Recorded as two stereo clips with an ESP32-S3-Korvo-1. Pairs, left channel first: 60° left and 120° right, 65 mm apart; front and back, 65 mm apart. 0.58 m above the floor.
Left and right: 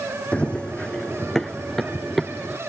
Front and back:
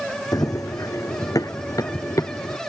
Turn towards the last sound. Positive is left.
turn(degrees=-30)